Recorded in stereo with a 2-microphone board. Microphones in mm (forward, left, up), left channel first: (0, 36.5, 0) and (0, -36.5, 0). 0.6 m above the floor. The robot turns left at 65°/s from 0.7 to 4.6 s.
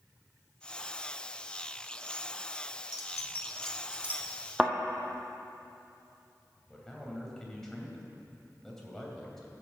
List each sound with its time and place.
2.9 s keys jangling: 50° left (ahead or behind), 1.3 m; by 4.2 s 30° right (ahead or behind), 1.3 m
4.6 s a thud: 15° right (ahead or behind), 1.3 m
6.7 s a man speaking: 5° left (ahead or behind), 2.5 m